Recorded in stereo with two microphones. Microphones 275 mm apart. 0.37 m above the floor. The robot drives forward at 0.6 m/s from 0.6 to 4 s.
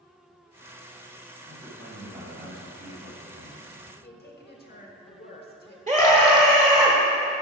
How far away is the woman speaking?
About 1.1 m.